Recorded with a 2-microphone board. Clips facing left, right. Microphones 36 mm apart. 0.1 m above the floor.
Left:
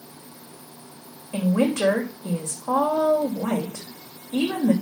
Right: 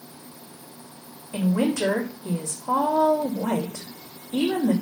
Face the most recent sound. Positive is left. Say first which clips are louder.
# left 1 dB
turn(degrees=45)  # may be behind; listen again after turning